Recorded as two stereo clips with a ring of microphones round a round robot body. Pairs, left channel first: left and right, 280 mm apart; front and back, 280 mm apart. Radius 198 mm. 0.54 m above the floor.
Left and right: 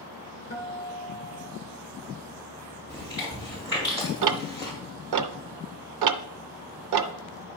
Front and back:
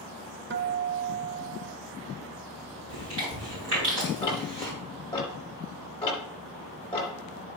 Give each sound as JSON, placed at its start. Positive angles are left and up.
{"t": 0.5, "sound": "a guitar", "azimuth_deg": 140, "distance_m": 0.6}
{"t": 2.9, "sound": "chewing", "azimuth_deg": 165, "distance_m": 5.0}
{"t": 4.2, "sound": "ticking", "azimuth_deg": -80, "distance_m": 0.5}